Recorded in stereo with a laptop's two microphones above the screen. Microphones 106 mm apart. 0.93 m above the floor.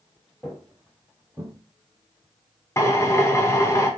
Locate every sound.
0.4 s footsteps: 5° left (ahead or behind), 1.0 m; by 1.5 s 30° right (ahead or behind), 1.1 m
2.8 s a drill: 25° left (ahead or behind), 0.6 m